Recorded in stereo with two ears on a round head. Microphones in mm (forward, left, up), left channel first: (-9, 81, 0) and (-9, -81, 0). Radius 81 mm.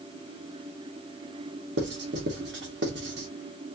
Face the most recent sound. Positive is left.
turn(degrees=-65)  # may be behind; listen again after turning